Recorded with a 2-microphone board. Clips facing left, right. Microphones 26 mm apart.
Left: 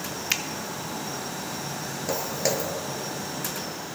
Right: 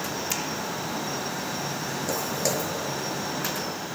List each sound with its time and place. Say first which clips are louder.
0.3 s a finger snap: left 6 dB; 40° left (ahead or behind), 0.6 m
2.1 s footsteps: left 2 dB; 10° left (ahead or behind), 0.6 m